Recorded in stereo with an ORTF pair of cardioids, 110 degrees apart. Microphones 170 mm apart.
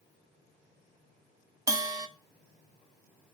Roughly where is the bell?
Ahead.